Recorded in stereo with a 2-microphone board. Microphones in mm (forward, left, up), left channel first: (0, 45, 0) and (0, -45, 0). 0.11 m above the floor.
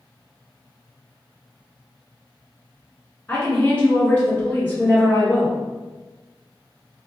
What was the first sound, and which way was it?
A woman speaking, 20° left (ahead or behind).